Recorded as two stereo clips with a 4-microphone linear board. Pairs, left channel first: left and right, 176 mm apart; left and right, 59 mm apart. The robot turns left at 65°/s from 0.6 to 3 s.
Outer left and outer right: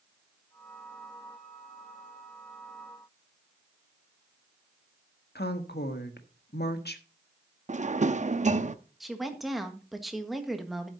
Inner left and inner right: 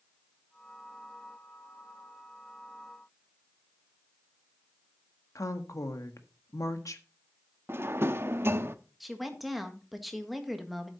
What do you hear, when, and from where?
5.3 s a woman speaking: 70° left (ahead or behind), 1.4 m
7.7 s a drawer: 45° right (ahead or behind), 0.6 m
9.0 s a woman speaking: centre (ahead or behind), 1.6 m